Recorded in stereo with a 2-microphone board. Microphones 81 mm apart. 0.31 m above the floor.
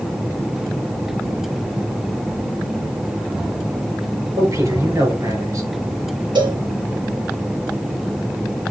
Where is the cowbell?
75° right (ahead or behind), 5 m.